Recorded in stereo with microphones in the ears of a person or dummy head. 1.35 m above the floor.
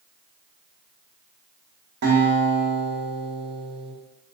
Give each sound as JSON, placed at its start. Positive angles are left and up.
{"t": 2.0, "sound": "a guitar", "side_deg": -50, "distance_m": 1.0}